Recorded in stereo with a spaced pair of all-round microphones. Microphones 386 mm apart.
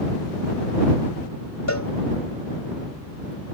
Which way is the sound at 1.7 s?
45° left (ahead or behind).